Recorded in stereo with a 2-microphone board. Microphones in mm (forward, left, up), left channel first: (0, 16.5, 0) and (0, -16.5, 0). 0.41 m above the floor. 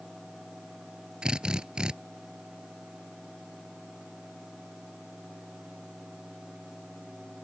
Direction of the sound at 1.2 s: 25° right (ahead or behind).